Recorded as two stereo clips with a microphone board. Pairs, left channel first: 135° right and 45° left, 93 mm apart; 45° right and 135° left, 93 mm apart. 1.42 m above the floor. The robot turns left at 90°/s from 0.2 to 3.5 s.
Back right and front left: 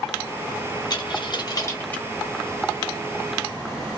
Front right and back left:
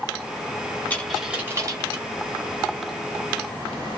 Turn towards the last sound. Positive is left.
turn(degrees=15)